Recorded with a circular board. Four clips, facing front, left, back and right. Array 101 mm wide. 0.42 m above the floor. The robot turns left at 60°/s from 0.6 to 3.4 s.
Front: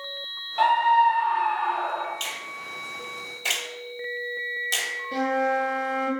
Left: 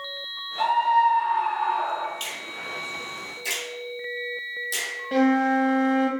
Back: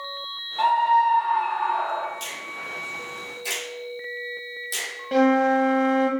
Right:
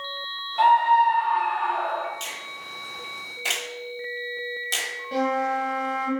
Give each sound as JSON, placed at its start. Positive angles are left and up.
{"t": 0.6, "sound": "a scream", "azimuth_deg": -15, "distance_m": 1.6}
{"t": 2.2, "sound": "a finger snap", "azimuth_deg": 20, "distance_m": 1.5}
{"t": 5.1, "sound": "a flute", "azimuth_deg": 160, "distance_m": 0.8}